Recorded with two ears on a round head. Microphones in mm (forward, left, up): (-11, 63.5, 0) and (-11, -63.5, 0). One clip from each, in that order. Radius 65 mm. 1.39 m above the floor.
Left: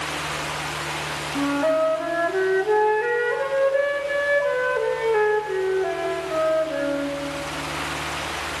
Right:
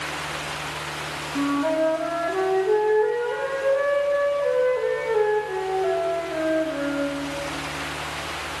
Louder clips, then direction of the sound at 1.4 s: Left 2 dB; 75° left (ahead or behind).